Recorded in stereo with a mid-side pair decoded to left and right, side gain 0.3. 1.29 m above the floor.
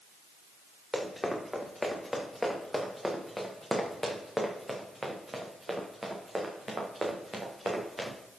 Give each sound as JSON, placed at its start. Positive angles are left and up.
{"t": 0.9, "sound": "running footsteps", "azimuth_deg": 15, "distance_m": 6.5}